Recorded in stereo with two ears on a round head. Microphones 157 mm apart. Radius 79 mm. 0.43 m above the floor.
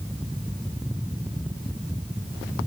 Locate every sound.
Only background noise.